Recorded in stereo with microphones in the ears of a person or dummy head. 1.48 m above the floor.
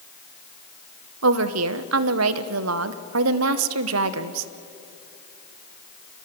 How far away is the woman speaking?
About 1.1 m.